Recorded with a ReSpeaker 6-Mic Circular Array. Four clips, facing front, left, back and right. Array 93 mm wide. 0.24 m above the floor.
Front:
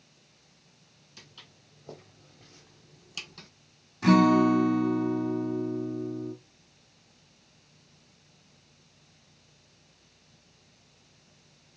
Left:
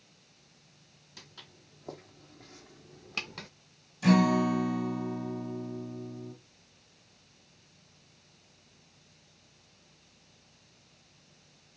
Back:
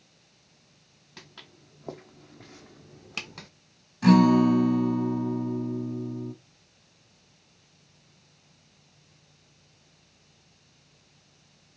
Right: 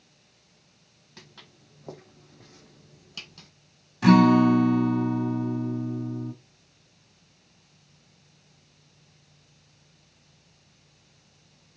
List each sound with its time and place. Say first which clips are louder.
1.2 s footsteps: right 3 dB, back 6 dB; 155° right, 1.7 m; by 3.5 s 120° left, 0.5 m
4.0 s a guitar: right 7 dB, back 2 dB; 100° right, 1.9 m